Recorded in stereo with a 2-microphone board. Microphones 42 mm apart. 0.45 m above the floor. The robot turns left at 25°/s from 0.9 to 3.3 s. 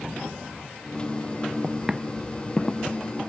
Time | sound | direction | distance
1.6 | footsteps | 20° right (ahead or behind) | ?